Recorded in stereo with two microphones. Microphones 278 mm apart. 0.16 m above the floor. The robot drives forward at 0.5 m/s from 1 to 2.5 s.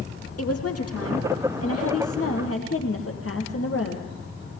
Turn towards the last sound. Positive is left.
turn(degrees=55)  # may be behind; listen again after turning